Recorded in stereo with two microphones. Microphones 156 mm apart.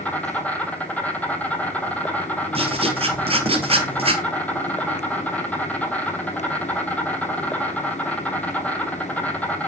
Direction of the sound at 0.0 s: 10° left (ahead or behind).